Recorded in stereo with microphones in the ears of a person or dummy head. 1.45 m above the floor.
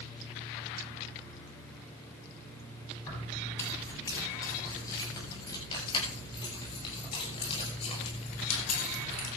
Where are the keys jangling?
15° left (ahead or behind), 9 m; by 9.3 s 40° left (ahead or behind), 5 m.